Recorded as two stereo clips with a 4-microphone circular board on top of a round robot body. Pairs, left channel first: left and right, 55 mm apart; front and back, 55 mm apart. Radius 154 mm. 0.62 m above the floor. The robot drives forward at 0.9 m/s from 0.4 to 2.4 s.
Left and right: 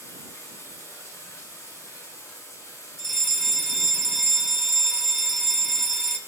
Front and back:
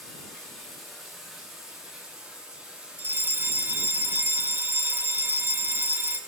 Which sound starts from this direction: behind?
A fire alarm, at 3.0 s.